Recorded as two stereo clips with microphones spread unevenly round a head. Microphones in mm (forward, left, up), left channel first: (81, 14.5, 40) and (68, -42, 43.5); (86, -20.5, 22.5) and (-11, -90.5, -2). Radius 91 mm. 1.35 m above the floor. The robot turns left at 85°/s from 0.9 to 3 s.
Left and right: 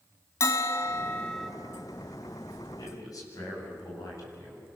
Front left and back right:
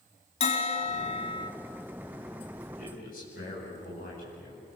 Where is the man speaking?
85° left, 9.5 m; by 4.7 s 65° left, 9.5 m.